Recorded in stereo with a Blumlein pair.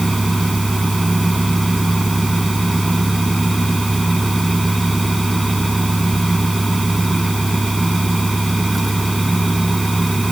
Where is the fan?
5° right.